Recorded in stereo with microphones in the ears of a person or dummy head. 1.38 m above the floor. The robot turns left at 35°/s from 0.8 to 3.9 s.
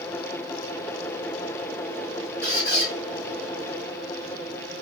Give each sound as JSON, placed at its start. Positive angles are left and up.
{"t": 2.4, "sound": "a squeak", "side_deg": 15, "distance_m": 1.7}